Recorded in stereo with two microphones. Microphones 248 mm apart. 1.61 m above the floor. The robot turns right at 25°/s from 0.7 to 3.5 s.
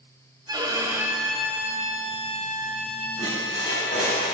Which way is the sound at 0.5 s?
15° right.